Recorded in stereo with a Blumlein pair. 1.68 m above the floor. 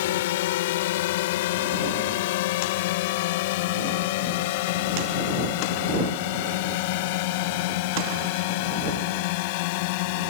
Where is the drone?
55° left; by 10.3 s 45° left.